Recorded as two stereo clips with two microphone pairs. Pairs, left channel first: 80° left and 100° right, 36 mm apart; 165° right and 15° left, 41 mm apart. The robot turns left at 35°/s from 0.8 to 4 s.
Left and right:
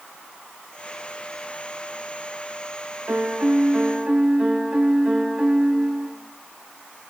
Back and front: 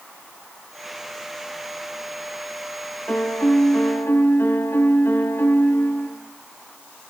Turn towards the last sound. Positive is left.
turn(degrees=-160)